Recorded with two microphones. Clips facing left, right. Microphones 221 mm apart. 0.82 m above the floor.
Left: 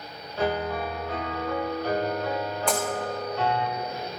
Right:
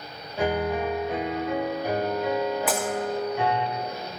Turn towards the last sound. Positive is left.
turn(degrees=-5)  # may be behind; listen again after turning